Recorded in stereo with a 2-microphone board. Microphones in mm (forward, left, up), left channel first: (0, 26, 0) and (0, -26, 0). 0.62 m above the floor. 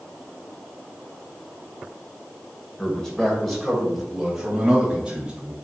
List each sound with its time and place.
2.8 s a man speaking: 15° left (ahead or behind), 2.5 m; by 5.5 s 20° right (ahead or behind), 3.5 m